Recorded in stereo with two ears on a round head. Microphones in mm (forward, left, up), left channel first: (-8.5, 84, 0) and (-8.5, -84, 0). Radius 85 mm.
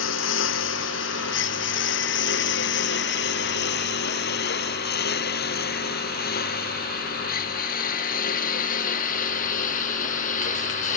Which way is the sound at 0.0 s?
80° left.